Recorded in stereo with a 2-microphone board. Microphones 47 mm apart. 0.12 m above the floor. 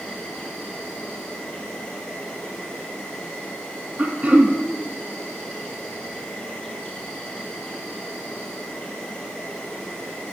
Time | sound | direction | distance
0.0 | an insect | 20° left (ahead or behind) | 1.8 m
4.0 | throat clearing | 30° right (ahead or behind) | 0.8 m